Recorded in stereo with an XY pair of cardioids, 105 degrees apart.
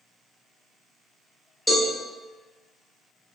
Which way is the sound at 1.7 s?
Straight ahead.